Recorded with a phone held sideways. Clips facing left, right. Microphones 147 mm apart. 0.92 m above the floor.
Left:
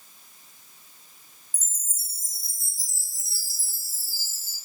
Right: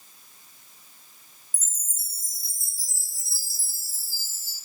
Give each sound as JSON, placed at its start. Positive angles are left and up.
{"t": 1.5, "sound": "a chime", "side_deg": 30, "distance_m": 2.5}